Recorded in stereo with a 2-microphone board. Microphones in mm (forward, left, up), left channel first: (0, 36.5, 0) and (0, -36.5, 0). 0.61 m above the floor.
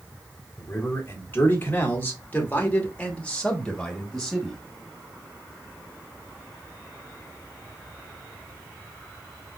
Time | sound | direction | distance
0.6 | a man speaking | 30° left (ahead or behind) | 2 m